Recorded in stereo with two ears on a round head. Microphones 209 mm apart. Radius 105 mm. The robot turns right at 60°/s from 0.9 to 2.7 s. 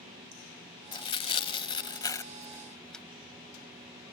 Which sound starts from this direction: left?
Tearing paper, at 0.9 s.